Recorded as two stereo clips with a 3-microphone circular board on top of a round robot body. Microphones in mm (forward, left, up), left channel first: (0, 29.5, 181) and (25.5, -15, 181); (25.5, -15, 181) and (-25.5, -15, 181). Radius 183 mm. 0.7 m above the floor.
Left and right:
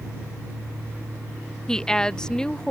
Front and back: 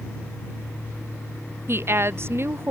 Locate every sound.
1.7 s a woman speaking: 165° right